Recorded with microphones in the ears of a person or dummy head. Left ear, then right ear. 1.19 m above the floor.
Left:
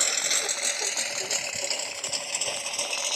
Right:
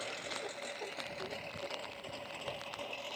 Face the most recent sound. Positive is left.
turn(degrees=85)